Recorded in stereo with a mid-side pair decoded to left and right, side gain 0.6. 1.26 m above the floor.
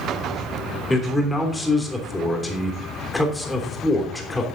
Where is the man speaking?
15° left, 3 m.